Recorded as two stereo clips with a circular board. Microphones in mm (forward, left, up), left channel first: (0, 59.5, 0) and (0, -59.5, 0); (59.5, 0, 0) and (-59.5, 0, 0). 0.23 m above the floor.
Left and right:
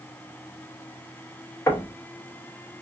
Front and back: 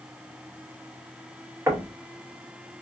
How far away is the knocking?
About 0.8 m.